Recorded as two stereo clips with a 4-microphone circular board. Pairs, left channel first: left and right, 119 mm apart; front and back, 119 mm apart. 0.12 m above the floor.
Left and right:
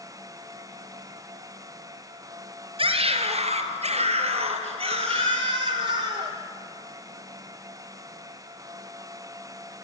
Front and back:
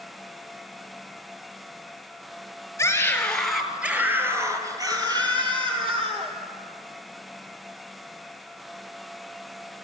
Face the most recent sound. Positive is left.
turn(degrees=-140)